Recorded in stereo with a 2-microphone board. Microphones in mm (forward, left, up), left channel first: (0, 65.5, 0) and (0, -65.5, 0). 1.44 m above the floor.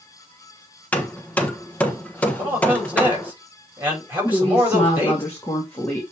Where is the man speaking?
15° right (ahead or behind), 5 m.